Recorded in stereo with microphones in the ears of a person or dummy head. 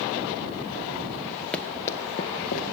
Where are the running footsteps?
5° left (ahead or behind), 1.5 m; by 2.6 s 35° left (ahead or behind), 1.5 m.